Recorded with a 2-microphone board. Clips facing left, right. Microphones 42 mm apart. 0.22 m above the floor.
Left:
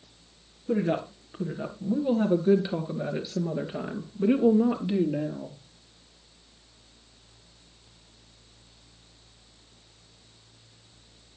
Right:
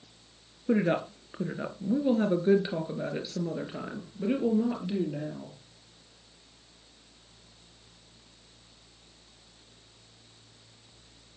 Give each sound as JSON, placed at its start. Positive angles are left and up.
{"t": 0.7, "sound": "a woman speaking", "side_deg": -30, "distance_m": 3.0}